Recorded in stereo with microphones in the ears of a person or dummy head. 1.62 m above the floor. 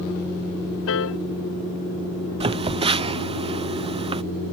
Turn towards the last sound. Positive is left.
turn(degrees=-25)  # may be behind; listen again after turning